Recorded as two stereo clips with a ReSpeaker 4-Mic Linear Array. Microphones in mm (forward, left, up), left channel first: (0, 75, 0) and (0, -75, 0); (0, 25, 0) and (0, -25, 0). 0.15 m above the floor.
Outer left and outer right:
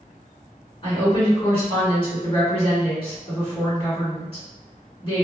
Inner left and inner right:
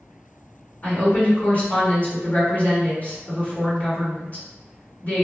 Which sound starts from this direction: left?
A woman speaking, at 0.8 s.